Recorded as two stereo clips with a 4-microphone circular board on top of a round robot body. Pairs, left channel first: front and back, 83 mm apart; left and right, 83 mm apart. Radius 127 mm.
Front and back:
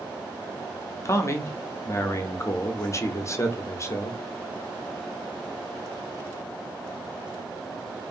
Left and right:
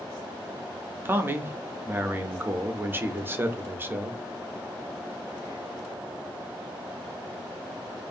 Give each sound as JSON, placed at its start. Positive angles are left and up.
{"t": 1.1, "sound": "a man speaking", "azimuth_deg": -35, "distance_m": 0.6}